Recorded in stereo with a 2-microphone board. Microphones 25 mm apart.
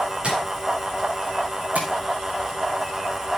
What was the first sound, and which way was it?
Tapping, 45° right (ahead or behind).